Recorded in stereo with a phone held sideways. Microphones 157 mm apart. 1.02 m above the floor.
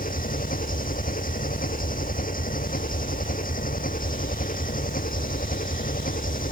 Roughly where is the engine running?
Left.